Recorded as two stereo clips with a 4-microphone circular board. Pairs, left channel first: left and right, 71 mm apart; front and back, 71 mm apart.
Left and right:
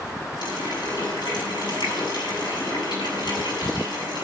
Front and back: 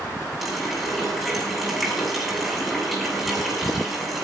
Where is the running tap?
90° left, 7 m.